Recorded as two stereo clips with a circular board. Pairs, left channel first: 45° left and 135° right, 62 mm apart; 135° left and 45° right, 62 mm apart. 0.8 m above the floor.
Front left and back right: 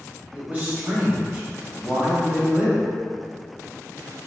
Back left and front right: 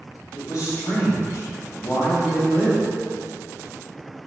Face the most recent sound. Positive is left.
turn(degrees=160)